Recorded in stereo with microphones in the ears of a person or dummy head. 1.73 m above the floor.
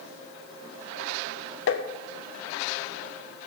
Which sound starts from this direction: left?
Tapping, at 1.7 s.